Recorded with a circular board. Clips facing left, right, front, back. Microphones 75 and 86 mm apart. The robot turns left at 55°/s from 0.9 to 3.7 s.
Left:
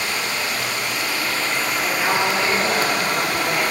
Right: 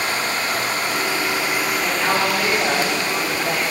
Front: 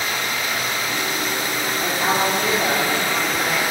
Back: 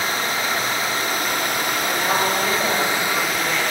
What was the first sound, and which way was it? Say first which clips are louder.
Running water: right 2 dB, back 2 dB; 135° right.